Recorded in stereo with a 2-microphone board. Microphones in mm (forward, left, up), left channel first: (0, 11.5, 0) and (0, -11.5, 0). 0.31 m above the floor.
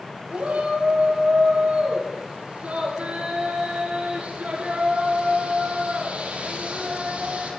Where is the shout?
75° right (ahead or behind), 8 m.